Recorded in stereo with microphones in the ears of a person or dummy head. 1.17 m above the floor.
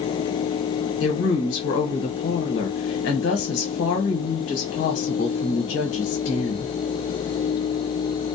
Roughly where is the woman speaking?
Left.